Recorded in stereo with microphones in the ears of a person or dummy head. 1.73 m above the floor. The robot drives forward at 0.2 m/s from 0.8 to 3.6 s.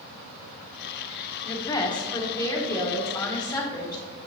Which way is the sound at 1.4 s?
25° left (ahead or behind).